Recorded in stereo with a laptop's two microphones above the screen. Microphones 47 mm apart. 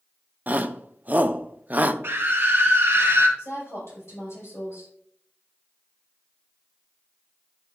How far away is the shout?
About 0.5 m.